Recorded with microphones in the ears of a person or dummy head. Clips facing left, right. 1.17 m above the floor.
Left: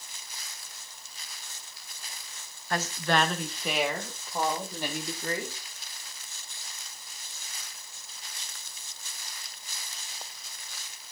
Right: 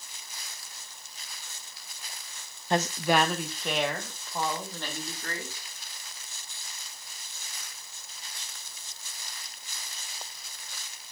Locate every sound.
2.7 s a woman speaking: 20° right (ahead or behind), 0.8 m; by 5.6 s 10° left (ahead or behind), 3 m